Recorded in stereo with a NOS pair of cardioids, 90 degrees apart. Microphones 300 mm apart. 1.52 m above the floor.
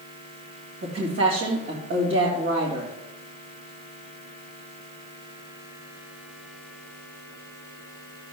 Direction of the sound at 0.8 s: 55° right.